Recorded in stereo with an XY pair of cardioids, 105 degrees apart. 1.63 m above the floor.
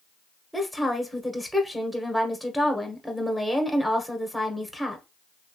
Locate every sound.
0.5 s a woman speaking: 5° right, 1.2 m